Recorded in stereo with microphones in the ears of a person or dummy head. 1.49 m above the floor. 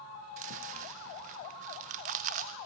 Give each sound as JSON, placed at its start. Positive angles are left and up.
{"t": 0.4, "sound": "chewing", "side_deg": -50, "distance_m": 0.6}